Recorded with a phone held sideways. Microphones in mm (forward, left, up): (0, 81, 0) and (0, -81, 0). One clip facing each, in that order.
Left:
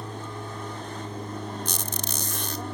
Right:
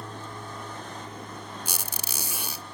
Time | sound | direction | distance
0.0 | an aircraft | 15° left (ahead or behind) | ?
1.6 | a squeak | 10° right (ahead or behind) | ?